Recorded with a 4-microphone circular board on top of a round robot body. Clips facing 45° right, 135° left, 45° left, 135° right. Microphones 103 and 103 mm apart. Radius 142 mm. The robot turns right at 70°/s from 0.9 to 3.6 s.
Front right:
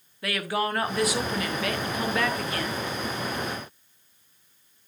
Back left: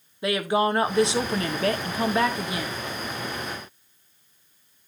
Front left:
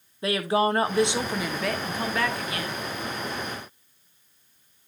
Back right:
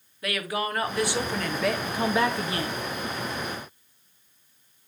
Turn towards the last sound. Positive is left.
turn(degrees=-85)